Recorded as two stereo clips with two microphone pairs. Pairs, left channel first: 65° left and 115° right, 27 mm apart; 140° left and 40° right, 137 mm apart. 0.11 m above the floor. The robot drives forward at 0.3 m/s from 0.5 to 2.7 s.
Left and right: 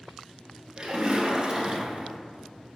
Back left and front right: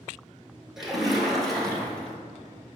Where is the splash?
125° right, 1.5 m; by 2.2 s 145° right, 1.7 m.